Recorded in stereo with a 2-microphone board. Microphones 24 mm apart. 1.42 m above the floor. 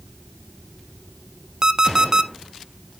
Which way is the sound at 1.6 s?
25° right (ahead or behind).